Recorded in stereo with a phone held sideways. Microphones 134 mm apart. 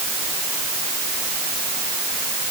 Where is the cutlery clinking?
I don't hear cutlery clinking.